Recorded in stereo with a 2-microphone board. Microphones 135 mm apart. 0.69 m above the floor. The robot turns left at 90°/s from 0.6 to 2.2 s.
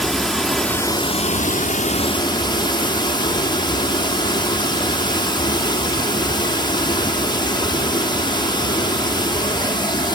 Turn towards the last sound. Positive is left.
turn(degrees=35)